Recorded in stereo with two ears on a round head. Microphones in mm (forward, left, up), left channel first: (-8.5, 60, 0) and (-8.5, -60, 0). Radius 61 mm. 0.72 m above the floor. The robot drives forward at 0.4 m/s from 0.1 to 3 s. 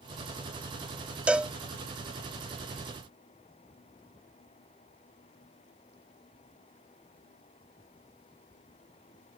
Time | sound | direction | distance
1.3 | a cowbell | 10° right (ahead or behind) | ?